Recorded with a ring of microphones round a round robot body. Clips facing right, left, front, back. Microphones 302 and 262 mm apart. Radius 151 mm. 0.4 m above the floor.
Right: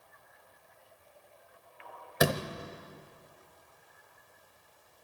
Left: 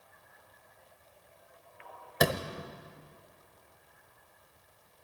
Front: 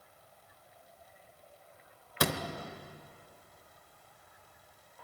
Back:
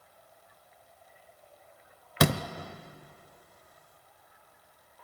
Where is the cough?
No cough in this recording.